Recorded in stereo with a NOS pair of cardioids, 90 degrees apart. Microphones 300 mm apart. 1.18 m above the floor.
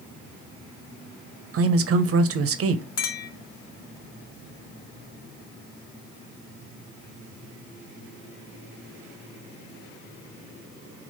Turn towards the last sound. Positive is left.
turn(degrees=60)